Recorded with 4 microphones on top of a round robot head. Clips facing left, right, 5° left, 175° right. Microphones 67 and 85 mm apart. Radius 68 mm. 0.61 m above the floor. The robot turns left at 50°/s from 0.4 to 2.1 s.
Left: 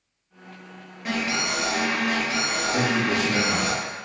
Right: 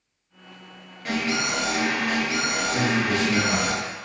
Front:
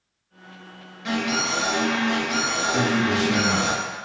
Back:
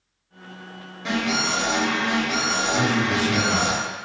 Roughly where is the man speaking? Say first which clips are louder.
Left 1 dB, front 1 dB; left.